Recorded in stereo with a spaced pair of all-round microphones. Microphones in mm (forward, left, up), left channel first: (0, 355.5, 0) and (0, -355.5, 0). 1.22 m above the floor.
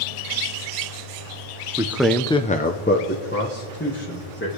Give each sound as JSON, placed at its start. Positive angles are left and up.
{"t": 1.8, "sound": "a man speaking", "side_deg": -5, "distance_m": 0.7}